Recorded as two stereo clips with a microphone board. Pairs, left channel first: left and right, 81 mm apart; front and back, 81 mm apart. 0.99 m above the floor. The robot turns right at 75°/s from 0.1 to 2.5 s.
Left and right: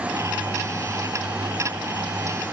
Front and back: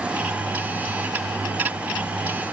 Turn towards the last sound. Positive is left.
No sound to turn to.